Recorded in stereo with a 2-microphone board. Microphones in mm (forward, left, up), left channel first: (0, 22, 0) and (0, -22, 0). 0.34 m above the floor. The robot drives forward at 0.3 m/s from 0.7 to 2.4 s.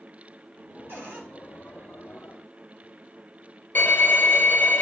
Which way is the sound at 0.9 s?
50° right (ahead or behind).